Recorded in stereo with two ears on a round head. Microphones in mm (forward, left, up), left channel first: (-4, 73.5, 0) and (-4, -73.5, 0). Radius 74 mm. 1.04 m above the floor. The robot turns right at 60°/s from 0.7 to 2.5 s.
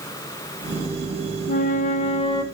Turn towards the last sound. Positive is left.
turn(degrees=155)